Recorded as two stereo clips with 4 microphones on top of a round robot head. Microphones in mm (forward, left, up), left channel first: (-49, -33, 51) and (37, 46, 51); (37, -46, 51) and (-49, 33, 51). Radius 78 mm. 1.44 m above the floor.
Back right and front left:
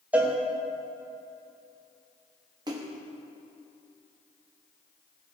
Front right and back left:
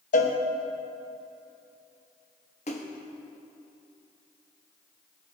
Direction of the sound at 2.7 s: 10° right.